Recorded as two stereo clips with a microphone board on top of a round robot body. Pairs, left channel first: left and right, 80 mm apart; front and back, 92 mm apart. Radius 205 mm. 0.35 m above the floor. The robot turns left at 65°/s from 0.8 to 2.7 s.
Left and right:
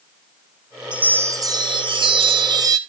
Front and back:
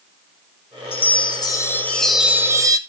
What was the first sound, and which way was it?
A chime, 15° right.